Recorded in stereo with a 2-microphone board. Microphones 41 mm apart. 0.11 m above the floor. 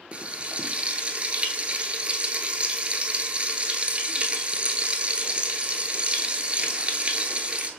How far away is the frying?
About 0.7 m.